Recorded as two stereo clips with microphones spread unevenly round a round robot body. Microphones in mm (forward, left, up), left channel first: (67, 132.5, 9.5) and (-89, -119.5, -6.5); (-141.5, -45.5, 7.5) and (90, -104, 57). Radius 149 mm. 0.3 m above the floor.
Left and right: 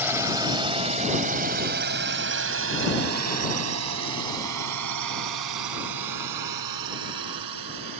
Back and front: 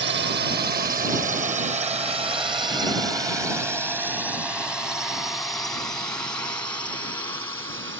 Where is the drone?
40° right; by 8.0 s 120° right.